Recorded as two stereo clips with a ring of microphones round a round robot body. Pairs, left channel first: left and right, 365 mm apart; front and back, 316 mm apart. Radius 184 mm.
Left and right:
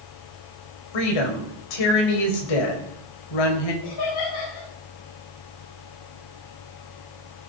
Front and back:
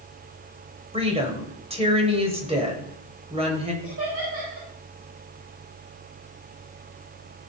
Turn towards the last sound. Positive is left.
turn(degrees=130)